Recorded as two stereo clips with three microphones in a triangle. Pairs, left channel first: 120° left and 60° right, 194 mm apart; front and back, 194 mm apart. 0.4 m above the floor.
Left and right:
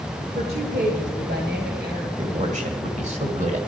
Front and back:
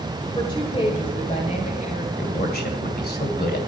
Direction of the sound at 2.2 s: 15° right.